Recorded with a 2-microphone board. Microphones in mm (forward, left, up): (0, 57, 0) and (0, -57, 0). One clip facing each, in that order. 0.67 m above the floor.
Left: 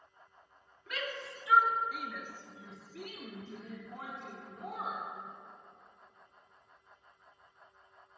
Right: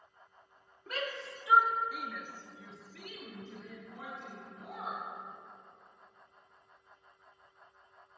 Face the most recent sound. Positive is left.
turn(degrees=70)  # may be behind; listen again after turning